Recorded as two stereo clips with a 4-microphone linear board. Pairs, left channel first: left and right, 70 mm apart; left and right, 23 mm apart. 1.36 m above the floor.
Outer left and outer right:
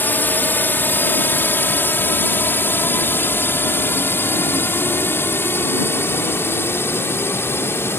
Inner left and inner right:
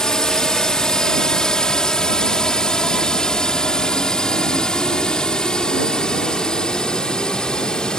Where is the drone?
25° left (ahead or behind); by 8.0 s 35° left (ahead or behind).